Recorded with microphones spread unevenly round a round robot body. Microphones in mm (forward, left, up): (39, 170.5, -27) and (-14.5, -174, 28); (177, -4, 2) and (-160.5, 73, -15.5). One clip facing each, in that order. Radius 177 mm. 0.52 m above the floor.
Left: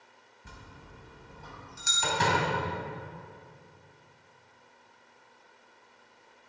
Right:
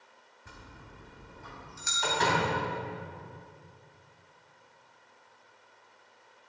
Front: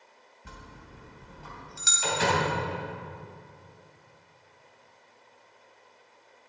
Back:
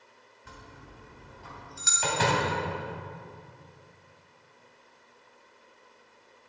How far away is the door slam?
About 3 m.